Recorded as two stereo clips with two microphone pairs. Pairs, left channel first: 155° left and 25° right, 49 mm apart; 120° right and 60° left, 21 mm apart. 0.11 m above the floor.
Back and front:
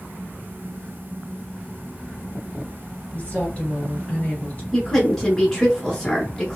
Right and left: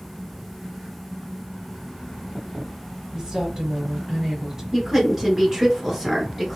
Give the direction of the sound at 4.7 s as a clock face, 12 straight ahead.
9 o'clock.